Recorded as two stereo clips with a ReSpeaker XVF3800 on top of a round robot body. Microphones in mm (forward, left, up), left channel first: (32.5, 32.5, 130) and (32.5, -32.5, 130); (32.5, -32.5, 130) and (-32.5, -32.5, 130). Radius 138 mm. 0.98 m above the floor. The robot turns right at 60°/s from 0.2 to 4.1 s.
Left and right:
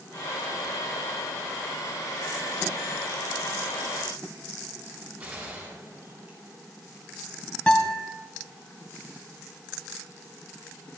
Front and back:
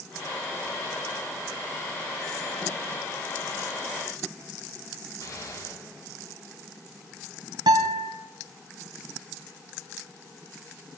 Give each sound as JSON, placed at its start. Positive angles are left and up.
{"t": 5.2, "sound": "a gunshot", "azimuth_deg": -35, "distance_m": 7.5}
{"t": 7.7, "sound": "a guitar", "azimuth_deg": 165, "distance_m": 1.7}